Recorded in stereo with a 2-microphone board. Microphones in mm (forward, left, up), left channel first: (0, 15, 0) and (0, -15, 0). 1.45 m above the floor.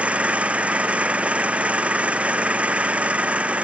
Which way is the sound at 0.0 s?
50° right (ahead or behind).